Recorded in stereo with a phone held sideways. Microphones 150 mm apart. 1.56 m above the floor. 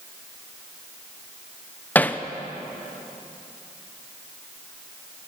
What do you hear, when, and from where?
1.9 s hammering: 10° left (ahead or behind), 0.8 m